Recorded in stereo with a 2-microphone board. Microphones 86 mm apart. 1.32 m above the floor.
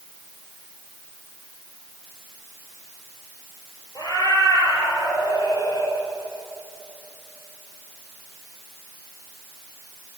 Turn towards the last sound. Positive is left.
turn(degrees=55)  # may be behind; listen again after turning